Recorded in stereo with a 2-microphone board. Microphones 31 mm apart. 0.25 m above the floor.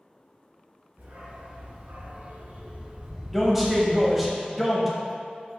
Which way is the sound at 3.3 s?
5° right (ahead or behind).